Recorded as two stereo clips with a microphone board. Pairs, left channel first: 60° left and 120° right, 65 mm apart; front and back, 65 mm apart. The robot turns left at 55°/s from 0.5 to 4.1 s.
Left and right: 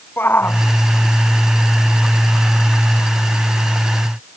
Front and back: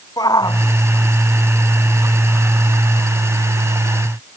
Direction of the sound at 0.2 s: 5° left.